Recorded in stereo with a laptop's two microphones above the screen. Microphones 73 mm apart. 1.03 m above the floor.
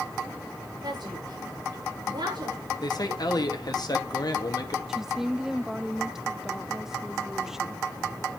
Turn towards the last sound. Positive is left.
turn(degrees=-5)  # may be behind; listen again after turning